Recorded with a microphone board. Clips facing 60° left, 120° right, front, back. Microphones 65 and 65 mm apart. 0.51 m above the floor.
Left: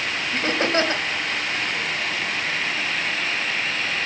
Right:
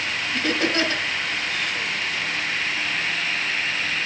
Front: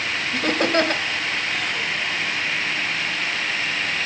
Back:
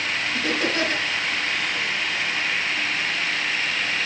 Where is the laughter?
10° left, 2.5 m.